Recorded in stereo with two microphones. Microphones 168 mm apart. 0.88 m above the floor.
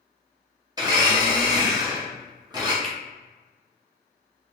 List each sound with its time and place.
0.8 s a blender: 25° right (ahead or behind), 1.0 m
2.8 s a finger snap: centre (ahead or behind), 0.7 m